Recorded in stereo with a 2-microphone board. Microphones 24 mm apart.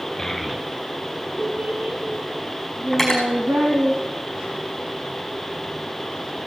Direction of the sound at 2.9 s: 10° left (ahead or behind).